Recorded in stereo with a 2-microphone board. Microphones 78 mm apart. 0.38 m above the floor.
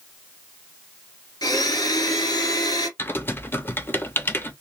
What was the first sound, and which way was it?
A blender, 60° left (ahead or behind).